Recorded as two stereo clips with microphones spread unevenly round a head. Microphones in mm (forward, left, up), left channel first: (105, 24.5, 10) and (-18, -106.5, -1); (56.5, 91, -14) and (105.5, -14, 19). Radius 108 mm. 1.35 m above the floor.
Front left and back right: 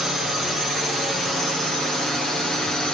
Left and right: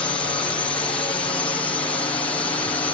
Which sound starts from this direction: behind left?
A drone, at 0.0 s.